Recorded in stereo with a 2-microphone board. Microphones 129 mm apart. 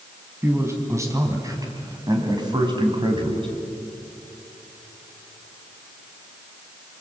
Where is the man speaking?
20° right (ahead or behind), 4 m; by 3.5 s 40° right (ahead or behind), 3.5 m.